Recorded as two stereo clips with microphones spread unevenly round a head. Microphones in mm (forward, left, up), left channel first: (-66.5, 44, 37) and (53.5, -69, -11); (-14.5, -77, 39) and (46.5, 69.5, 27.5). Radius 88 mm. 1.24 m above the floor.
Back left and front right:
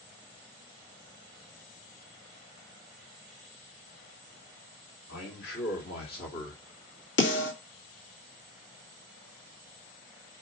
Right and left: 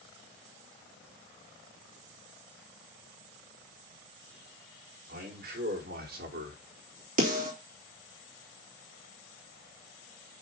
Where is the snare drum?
105° left, 3 m.